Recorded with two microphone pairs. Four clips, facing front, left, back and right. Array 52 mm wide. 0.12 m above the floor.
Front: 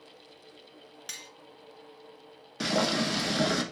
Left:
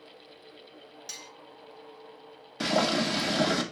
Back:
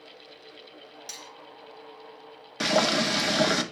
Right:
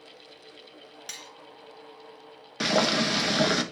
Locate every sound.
1.1 s cutlery clinking: 55° right, 0.9 m
2.6 s boiling: 140° right, 0.9 m